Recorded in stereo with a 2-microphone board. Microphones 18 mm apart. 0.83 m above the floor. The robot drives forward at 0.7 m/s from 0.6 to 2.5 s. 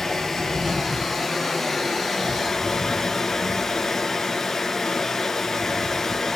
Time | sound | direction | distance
0.0 | running water | 15° left (ahead or behind) | 4 m